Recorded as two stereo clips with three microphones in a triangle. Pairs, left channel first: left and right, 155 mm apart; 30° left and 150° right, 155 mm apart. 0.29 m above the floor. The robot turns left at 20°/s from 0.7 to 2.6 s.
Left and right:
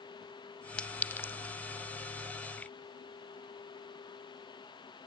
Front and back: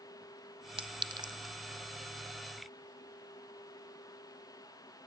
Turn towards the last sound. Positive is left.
turn(degrees=135)